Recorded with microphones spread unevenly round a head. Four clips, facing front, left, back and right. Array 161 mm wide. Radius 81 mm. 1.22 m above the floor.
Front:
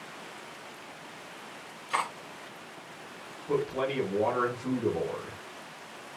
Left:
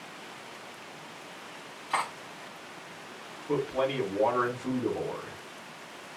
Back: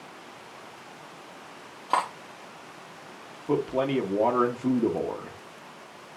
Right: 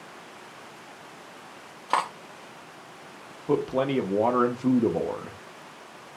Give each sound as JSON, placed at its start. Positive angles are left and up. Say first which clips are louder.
{"t": 1.9, "sound": "cutlery clinking", "louder": "right 5 dB, back 5 dB", "azimuth_deg": -130, "distance_m": 1.0}
{"t": 3.5, "sound": "a man speaking", "louder": "right 4 dB, back 4 dB", "azimuth_deg": -115, "distance_m": 1.3}